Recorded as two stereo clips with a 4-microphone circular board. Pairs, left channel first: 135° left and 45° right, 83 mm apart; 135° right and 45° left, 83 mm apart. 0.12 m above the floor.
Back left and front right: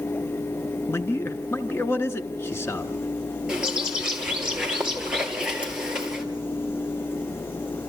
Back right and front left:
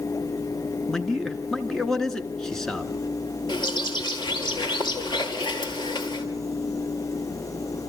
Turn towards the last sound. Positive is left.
turn(degrees=-125)